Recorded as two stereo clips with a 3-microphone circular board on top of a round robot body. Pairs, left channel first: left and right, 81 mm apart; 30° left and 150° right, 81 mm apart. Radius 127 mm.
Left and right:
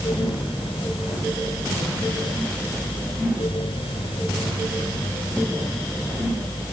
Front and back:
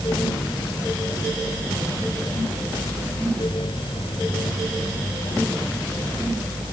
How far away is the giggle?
No giggle in this recording.